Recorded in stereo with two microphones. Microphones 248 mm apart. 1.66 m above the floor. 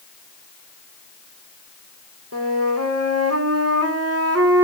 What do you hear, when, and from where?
2.3 s a flute: 70° right (ahead or behind), 3 m